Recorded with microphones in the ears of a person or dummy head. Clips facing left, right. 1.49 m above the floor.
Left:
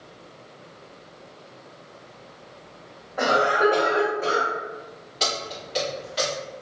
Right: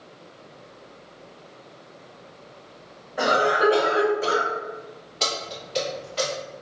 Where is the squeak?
No squeak in this recording.